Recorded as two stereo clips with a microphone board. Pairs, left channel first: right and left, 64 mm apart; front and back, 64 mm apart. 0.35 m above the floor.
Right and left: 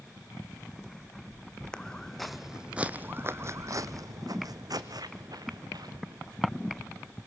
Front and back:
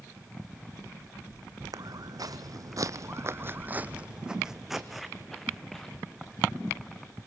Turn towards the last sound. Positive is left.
turn(degrees=75)